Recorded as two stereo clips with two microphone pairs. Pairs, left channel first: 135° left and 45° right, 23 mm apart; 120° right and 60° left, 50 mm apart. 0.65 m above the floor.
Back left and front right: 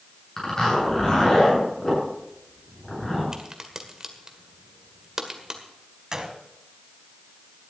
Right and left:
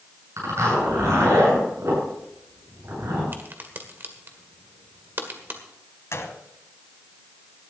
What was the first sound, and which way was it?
A zipper, 70° left.